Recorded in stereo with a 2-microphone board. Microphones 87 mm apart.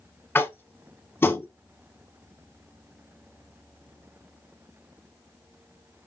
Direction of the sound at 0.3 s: 25° left (ahead or behind).